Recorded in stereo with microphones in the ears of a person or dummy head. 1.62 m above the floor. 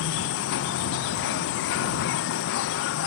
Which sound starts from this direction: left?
An insect, at 0.0 s.